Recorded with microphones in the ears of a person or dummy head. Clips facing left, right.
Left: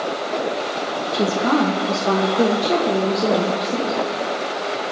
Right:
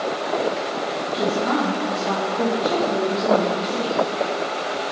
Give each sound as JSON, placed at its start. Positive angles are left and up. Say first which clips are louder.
{"t": 1.1, "sound": "a woman speaking", "louder": "left 3 dB", "side_deg": 60, "distance_m": 1.5}